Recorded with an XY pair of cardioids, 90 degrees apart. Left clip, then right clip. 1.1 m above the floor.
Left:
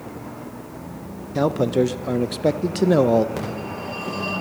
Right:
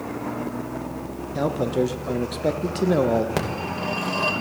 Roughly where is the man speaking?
Ahead left.